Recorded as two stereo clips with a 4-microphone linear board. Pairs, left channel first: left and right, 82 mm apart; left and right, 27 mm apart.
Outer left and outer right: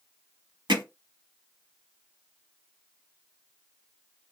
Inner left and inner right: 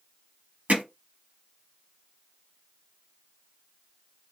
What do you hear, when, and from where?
0.7 s hammering: 70° right (ahead or behind), 1.2 m